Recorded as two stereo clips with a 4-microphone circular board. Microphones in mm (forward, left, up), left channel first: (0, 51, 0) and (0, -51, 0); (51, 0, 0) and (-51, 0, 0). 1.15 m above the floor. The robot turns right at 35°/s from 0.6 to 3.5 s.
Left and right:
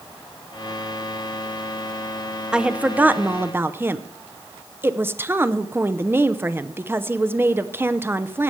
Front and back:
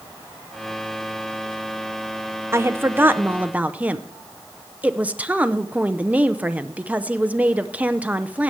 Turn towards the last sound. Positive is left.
turn(degrees=-125)